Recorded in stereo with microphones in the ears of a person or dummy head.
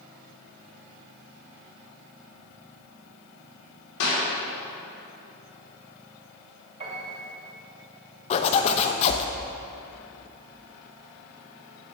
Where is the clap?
85° left, 3.5 m.